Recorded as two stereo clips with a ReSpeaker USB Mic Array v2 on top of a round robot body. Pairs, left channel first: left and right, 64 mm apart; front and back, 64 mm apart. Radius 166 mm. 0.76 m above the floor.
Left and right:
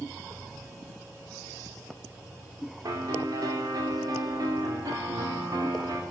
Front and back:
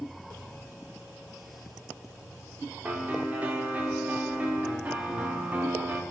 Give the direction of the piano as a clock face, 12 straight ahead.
4 o'clock.